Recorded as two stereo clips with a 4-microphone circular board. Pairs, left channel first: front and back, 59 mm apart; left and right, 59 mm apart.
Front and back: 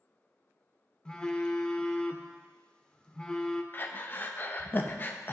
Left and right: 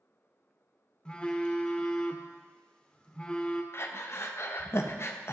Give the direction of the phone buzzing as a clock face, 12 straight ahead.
11 o'clock.